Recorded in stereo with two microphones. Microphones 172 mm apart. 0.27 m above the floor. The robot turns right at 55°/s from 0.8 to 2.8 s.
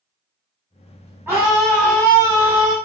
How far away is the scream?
About 1.4 m.